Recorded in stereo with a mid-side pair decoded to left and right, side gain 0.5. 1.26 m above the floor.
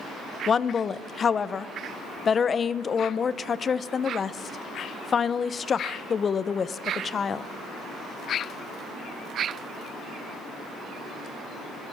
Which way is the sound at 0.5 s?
40° left.